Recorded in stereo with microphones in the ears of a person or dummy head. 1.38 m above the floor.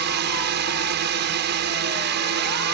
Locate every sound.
0.0 s a drone: 55° right (ahead or behind)